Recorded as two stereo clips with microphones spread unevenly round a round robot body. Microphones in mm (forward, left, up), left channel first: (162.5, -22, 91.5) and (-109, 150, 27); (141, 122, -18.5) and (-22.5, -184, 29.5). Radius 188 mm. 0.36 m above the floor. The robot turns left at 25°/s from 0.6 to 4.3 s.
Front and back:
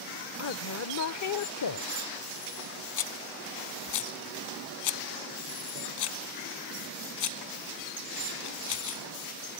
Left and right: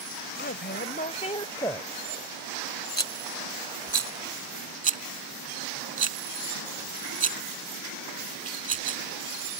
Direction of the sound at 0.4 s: 15° left.